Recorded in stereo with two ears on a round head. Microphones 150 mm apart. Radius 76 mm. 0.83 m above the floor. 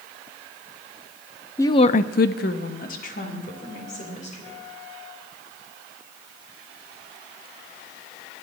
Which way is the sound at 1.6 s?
15° left (ahead or behind).